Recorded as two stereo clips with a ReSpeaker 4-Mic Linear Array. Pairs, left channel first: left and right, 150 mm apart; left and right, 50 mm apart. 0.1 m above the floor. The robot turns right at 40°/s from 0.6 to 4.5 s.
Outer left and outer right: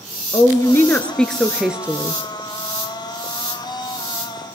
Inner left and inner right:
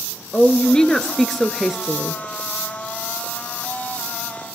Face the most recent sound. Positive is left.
turn(degrees=-60)